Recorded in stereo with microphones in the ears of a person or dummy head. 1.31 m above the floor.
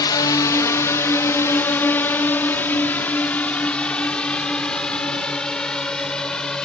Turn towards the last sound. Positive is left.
turn(degrees=0)  # may be behind; listen again after turning